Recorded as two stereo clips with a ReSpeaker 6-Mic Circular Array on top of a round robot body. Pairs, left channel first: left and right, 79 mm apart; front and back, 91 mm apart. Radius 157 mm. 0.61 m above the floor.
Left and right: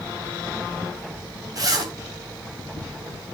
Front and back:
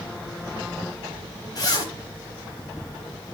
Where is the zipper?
45° right, 4 m.